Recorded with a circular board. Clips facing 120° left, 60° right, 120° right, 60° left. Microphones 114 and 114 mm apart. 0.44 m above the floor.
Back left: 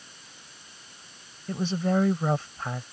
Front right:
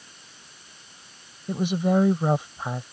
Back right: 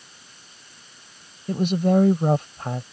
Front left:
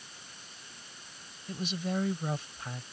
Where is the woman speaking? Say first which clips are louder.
Front right 3 dB, back right 14 dB; 135° right.